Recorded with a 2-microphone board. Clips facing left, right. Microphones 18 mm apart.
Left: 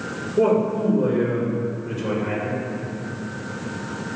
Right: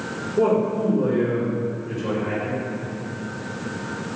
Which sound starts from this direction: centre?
A man speaking, at 0.4 s.